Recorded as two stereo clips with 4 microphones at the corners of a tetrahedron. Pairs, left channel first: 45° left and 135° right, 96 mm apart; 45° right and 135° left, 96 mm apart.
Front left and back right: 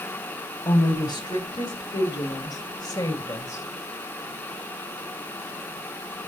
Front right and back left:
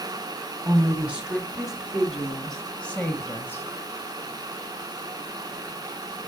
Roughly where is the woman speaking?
Ahead left.